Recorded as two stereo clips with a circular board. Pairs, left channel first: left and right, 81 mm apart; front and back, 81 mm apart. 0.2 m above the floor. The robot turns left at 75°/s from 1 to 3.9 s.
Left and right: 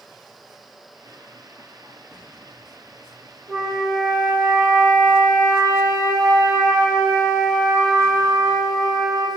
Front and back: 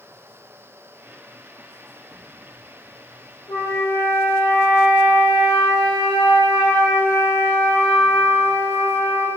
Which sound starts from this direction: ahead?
A flute, at 3.5 s.